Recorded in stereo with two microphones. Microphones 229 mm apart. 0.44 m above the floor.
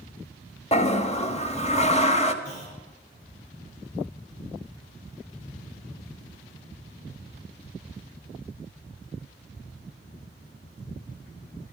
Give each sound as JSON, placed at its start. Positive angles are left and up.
{"t": 0.7, "sound": "a toilet flushing", "side_deg": 30, "distance_m": 1.1}
{"t": 2.4, "sound": "a clunk", "side_deg": 85, "distance_m": 8.5}